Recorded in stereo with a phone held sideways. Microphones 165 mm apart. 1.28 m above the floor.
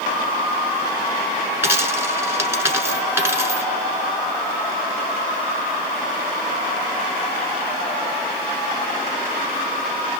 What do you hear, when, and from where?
1.6 s a dropped coin: 15° right (ahead or behind), 1.2 m